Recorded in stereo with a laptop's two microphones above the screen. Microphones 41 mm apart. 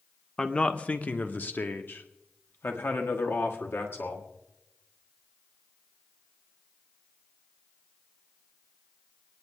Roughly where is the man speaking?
Centre.